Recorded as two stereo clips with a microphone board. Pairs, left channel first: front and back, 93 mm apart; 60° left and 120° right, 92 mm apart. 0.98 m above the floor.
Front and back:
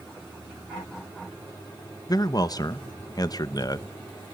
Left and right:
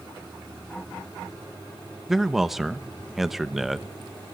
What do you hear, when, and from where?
2.1 s a man speaking: 35° right, 0.8 m